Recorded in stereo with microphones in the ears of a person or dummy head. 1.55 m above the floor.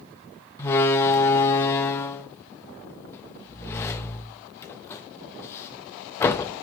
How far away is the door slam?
About 0.9 m.